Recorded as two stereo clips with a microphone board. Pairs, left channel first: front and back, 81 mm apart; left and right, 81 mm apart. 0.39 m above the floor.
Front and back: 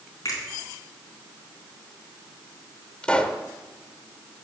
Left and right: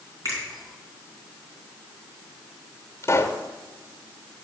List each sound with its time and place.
0.2 s a finger snap: 45° right, 3.5 m
3.0 s a pop: 65° left, 0.8 m